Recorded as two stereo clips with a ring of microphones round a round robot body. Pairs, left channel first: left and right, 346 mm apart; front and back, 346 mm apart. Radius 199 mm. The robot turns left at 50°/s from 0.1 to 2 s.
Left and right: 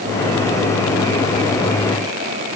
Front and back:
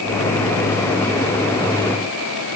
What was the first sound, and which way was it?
Only background noise.